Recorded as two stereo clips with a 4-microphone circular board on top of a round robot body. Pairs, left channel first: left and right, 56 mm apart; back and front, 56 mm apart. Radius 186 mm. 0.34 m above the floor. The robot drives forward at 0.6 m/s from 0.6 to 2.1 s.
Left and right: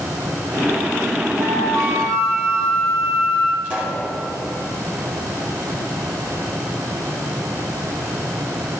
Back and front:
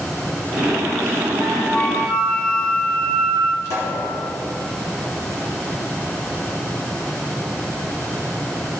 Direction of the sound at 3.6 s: 155° right.